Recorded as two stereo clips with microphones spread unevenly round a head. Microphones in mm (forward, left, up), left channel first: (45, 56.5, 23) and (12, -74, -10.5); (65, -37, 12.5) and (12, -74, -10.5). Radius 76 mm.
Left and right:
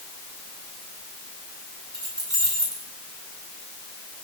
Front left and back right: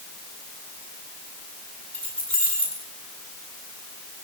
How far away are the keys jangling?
About 9.5 m.